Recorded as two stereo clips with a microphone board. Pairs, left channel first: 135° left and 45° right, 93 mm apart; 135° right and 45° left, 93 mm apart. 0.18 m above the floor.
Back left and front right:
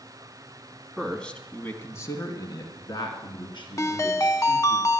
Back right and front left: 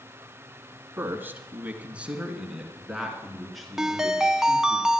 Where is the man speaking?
50° left, 1.7 m; by 4.8 s 140° left, 4 m.